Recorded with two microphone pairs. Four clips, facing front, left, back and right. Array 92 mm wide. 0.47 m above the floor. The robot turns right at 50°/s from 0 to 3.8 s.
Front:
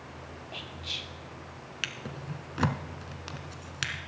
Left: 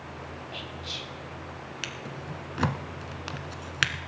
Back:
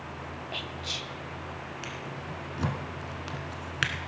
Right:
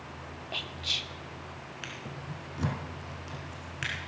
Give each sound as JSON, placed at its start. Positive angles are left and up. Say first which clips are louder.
{"t": 0.5, "sound": "whispering", "louder": "left 1 dB, back 5 dB", "azimuth_deg": -130, "distance_m": 0.7}
{"t": 1.8, "sound": "a drawer", "louder": "left 2 dB, back 2 dB", "azimuth_deg": 15, "distance_m": 1.2}